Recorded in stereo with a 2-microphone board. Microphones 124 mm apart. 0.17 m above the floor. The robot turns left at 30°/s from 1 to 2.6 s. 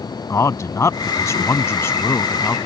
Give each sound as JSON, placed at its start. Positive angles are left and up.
{"t": 0.3, "sound": "a man speaking", "side_deg": 25}